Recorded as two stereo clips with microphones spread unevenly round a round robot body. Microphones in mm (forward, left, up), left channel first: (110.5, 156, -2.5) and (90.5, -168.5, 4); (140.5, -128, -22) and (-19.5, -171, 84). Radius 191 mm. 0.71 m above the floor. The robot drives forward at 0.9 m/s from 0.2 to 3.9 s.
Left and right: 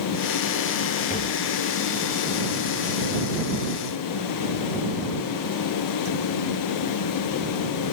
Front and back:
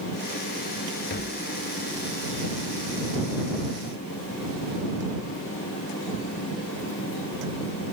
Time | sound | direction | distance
1.1 | tapping | 20° left | ?